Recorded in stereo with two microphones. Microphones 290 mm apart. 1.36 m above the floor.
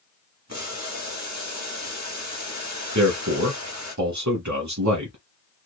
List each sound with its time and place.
0.5 s boiling: 65° right (ahead or behind), 1.2 m
3.0 s a man speaking: 70° right (ahead or behind), 1.0 m